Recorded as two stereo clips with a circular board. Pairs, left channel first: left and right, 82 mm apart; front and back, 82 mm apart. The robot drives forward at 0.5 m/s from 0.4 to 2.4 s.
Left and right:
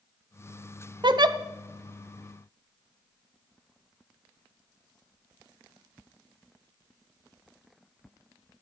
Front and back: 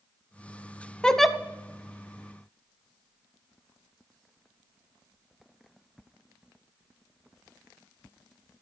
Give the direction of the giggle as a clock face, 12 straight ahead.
3 o'clock.